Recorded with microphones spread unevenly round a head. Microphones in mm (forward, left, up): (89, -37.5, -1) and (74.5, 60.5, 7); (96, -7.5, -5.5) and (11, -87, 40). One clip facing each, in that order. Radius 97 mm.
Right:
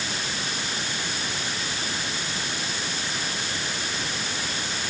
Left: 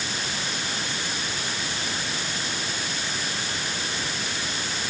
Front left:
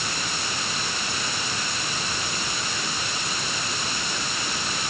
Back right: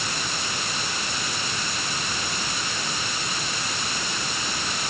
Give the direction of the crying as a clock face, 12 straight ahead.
I don't hear crying.